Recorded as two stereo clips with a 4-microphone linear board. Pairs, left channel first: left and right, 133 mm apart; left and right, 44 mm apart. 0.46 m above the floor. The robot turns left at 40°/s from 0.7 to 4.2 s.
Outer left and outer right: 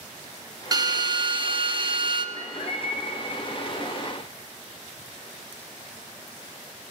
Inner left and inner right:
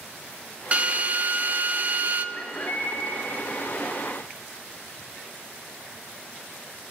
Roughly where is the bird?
Behind left.